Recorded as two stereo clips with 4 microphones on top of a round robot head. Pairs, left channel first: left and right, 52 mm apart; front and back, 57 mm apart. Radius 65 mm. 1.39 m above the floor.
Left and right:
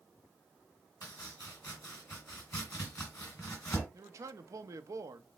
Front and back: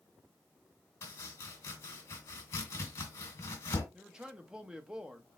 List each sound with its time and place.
1.0 s chopping: 30° left, 1.9 m
3.9 s a man speaking: 105° right, 0.7 m